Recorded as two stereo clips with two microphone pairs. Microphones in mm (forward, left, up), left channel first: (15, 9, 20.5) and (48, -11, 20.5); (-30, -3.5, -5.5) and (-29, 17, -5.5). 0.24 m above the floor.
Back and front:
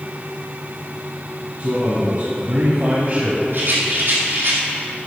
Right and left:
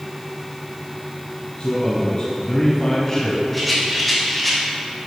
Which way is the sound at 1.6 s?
65° right.